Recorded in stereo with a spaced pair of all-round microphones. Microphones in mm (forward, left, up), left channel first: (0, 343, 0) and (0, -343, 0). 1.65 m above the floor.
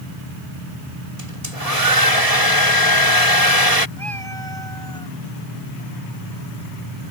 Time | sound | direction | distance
1.2 | a hair dryer | 55° right (ahead or behind) | ?
4.0 | a cat meowing | 35° right (ahead or behind) | ?